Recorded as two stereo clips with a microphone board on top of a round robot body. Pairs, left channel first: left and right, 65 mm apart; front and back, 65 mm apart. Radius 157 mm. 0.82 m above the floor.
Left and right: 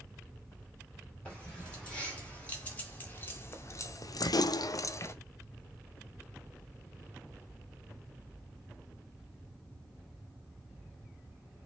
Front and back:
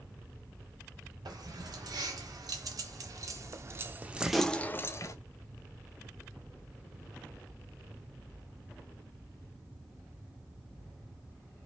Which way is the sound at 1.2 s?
165° left.